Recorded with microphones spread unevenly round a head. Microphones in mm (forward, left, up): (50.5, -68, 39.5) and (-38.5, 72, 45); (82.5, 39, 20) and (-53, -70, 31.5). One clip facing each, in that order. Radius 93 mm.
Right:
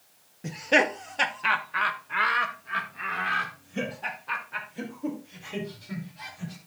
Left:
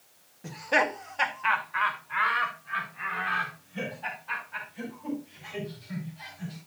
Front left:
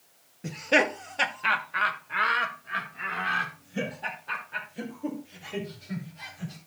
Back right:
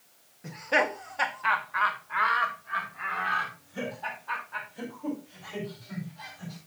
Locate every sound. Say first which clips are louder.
0.4 s laughter: right 3 dB, front left 3 dB; 5° left, 0.7 m; by 6.6 s 25° right, 4 m